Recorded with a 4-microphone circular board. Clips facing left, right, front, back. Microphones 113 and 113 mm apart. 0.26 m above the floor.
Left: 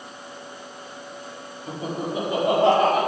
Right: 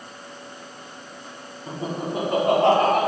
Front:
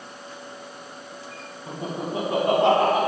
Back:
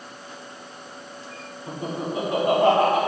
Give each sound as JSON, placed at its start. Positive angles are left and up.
{"t": 1.7, "sound": "laughter", "azimuth_deg": -35, "distance_m": 1.2}